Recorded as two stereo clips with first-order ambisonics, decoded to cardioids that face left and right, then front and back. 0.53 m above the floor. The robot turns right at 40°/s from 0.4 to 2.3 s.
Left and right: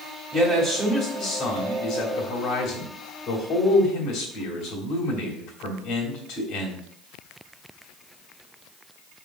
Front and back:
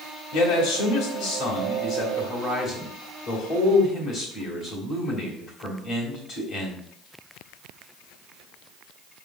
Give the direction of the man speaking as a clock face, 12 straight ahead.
1 o'clock.